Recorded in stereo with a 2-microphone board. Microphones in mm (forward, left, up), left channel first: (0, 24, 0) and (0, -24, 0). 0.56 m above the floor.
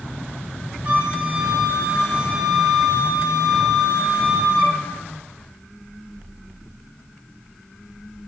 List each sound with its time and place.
0.8 s a flute: 25° right (ahead or behind), 0.5 m